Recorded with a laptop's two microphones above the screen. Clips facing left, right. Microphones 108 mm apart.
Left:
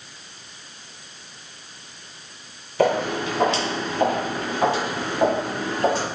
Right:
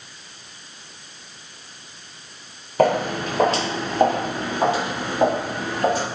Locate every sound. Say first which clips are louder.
2.8 s footsteps: right 2 dB; 45° right (ahead or behind), 1.3 m; by 6.0 s centre (ahead or behind), 1.6 m